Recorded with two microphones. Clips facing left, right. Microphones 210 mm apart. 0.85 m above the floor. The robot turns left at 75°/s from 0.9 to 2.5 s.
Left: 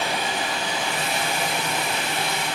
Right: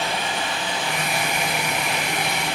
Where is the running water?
45° left, 4 m; by 2.6 s 75° right, 4 m.